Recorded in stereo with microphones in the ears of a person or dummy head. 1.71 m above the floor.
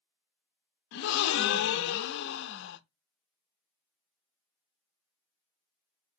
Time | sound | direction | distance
0.9 | a gasp | 65° left (ahead or behind) | 0.6 m